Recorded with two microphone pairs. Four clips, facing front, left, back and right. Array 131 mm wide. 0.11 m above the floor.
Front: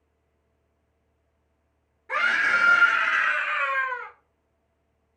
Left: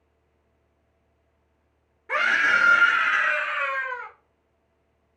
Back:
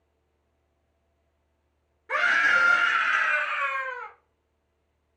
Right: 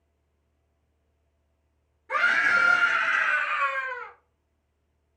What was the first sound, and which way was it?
A scream, 120° left.